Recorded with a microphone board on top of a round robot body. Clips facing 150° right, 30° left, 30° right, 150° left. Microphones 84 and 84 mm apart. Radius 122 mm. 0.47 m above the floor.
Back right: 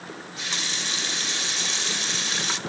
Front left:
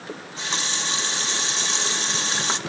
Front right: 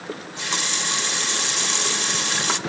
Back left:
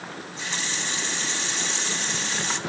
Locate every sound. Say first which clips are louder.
0.1 s a running tap: front left 5 dB, front right 7 dB; 25° right, 1.5 m